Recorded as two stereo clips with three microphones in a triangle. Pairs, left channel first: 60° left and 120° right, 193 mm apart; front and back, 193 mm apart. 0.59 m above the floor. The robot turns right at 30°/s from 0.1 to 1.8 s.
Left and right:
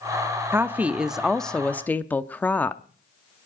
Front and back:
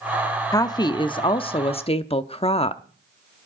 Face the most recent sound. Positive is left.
turn(degrees=-15)